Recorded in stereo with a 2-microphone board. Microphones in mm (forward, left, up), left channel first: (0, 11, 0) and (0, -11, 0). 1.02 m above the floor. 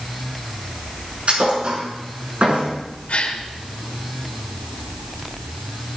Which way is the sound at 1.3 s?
50° right (ahead or behind).